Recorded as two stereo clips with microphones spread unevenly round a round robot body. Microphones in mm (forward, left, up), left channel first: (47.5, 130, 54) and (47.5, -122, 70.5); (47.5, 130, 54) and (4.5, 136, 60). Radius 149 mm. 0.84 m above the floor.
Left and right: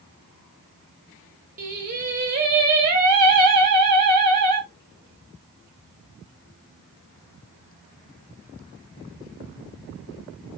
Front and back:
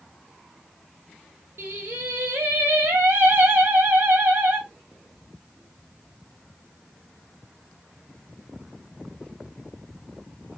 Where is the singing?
145° right, 0.9 m.